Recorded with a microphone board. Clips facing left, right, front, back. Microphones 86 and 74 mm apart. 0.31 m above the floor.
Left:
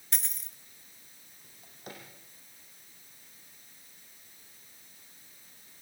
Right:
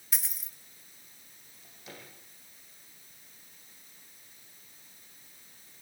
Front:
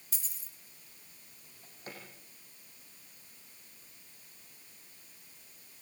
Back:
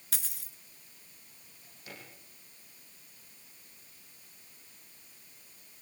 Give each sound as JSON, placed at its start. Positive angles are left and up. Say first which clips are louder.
{"t": 0.1, "sound": "a dropped coin", "louder": "even, back 7 dB", "azimuth_deg": -175, "distance_m": 1.0}
{"t": 1.4, "sound": "a drawer", "louder": "left 3 dB, front 2 dB", "azimuth_deg": 50, "distance_m": 8.5}